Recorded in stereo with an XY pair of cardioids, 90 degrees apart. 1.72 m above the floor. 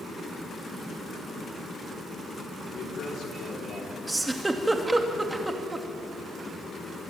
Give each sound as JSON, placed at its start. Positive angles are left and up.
{"t": 2.7, "sound": "a man speaking", "azimuth_deg": 70, "distance_m": 6.0}
{"t": 4.1, "sound": "a giggle", "azimuth_deg": -20, "distance_m": 3.0}